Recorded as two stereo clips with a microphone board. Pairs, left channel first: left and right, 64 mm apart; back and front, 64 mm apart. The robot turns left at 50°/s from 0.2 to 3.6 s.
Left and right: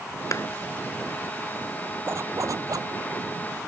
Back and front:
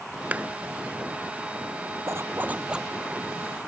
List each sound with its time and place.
0.3 s a clap: 65° left; by 0.5 s 60° left
2.1 s a zipper: 40° right; by 2.9 s 85° right